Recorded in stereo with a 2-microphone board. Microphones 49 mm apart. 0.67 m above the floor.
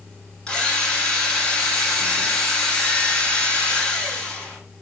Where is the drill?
15° left (ahead or behind), 5 m.